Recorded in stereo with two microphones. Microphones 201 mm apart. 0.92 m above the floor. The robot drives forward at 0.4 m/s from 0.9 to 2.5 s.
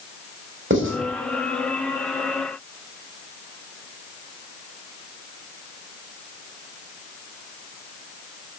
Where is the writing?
85° right, 4.5 m.